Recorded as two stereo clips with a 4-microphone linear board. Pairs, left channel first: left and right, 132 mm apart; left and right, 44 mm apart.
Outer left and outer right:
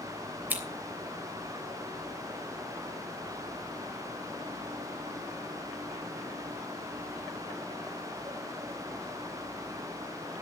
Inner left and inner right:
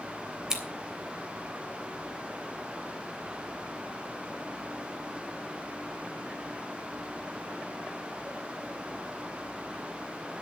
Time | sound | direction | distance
0.5 | scissors | 15° right (ahead or behind) | 3 m